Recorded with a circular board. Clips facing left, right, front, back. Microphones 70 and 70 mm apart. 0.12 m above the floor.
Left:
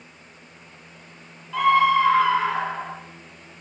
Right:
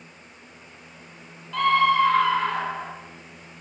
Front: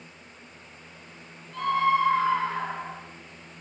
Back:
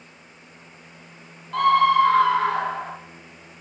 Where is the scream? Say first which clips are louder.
Left 2 dB, back 7 dB; 170° left, 3 m; by 3.0 s 175° left, 4.5 m.